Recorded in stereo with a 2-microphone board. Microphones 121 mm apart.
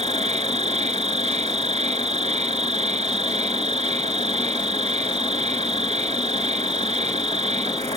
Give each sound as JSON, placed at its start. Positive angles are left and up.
{"t": 0.0, "sound": "an insect", "side_deg": -65}